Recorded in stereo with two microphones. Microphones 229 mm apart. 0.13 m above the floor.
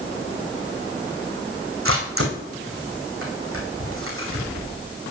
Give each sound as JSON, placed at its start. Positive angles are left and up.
{"t": 1.9, "sound": "a camera shutter", "side_deg": -70, "distance_m": 3.0}